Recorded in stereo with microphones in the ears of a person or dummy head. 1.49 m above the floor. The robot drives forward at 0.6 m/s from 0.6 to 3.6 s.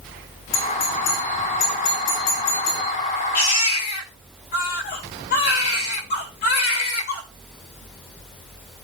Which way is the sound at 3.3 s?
50° left (ahead or behind).